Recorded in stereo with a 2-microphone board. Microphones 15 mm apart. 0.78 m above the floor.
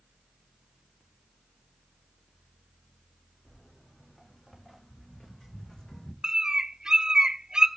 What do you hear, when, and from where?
3.5 s footsteps: 35° left (ahead or behind), 6 m; by 6.1 s 55° left (ahead or behind), 3 m
6.2 s a bird: 50° right (ahead or behind), 1.0 m